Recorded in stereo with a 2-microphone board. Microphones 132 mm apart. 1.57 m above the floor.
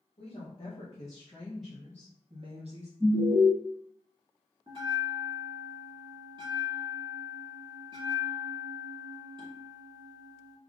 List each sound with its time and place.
0.2 s a woman speaking: 45° left (ahead or behind), 1.1 m; by 2.9 s 60° right (ahead or behind), 0.8 m
3.0 s an alarm: 15° right (ahead or behind), 1.3 m
4.7 s a bell: 35° right (ahead or behind), 1.3 m